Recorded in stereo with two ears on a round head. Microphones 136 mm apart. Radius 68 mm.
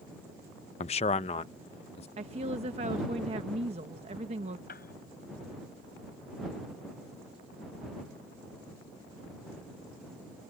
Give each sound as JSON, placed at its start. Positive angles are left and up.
{"t": 0.8, "sound": "a man speaking", "side_deg": 40}
{"t": 2.2, "sound": "a woman speaking", "side_deg": -40}
{"t": 4.7, "sound": "a piano", "side_deg": 65}